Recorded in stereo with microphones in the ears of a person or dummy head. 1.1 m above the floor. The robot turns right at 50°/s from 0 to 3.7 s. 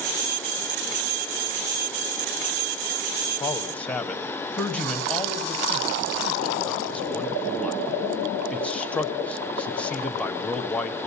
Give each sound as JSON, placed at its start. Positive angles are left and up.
{"t": 3.4, "sound": "a man speaking", "side_deg": 15, "distance_m": 1.4}